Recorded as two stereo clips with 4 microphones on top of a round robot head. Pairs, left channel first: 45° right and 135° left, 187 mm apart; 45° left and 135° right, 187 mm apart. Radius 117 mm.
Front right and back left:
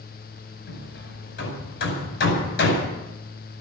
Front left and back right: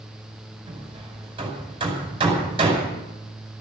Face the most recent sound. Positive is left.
turn(degrees=-70)